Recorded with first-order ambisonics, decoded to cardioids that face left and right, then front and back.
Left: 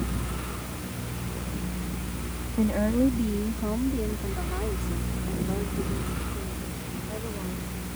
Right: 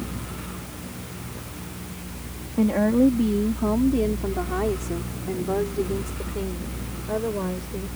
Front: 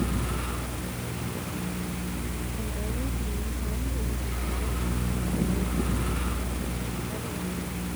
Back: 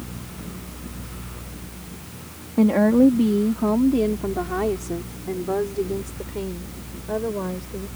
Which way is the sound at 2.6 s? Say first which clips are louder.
Right 5 dB, back 23 dB; 170° right.